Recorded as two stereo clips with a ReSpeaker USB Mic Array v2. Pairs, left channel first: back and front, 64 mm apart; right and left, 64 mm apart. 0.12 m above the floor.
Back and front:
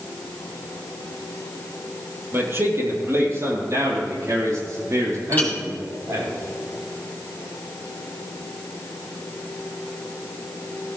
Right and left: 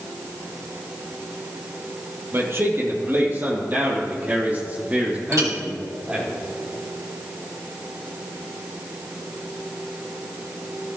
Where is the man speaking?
45° left, 2.5 m; by 6.3 s 20° left, 5 m.